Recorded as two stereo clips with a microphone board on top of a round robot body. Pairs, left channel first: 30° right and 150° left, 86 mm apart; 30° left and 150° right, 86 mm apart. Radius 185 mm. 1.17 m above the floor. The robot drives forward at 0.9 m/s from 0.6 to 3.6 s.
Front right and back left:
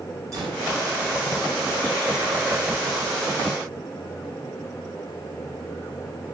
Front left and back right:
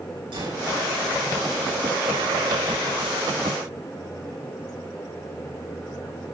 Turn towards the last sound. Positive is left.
turn(degrees=-165)